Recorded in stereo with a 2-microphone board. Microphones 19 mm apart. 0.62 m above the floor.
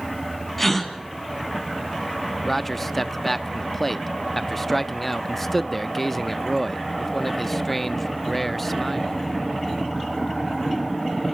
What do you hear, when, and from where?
0.6 s a gasp: 15° left (ahead or behind), 3.5 m
2.5 s a man speaking: 15° left (ahead or behind), 0.6 m